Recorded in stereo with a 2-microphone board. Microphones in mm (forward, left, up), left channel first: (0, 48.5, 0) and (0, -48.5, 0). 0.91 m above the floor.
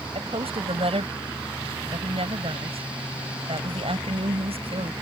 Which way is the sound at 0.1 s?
85° right.